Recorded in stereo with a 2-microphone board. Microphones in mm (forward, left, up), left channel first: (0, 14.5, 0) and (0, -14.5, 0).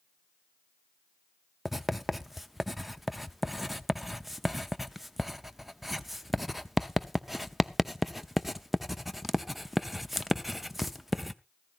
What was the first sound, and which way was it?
Writing, 5° right (ahead or behind).